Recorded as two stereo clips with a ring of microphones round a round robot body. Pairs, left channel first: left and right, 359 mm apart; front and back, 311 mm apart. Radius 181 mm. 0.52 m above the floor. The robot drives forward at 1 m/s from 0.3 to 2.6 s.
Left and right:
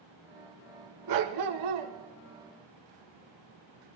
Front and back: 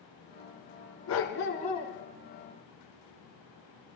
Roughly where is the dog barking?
Ahead right.